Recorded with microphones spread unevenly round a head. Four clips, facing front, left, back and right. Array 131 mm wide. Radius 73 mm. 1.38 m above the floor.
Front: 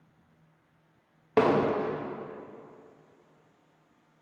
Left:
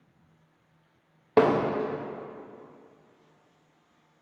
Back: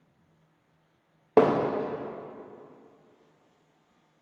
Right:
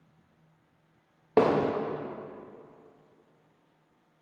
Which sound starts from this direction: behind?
Hammering, at 1.4 s.